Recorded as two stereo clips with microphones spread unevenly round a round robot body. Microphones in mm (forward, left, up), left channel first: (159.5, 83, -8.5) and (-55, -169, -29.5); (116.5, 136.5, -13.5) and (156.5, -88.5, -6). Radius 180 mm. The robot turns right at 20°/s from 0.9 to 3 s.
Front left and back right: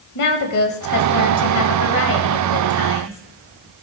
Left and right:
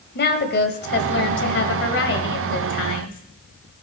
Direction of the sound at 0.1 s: 80° left.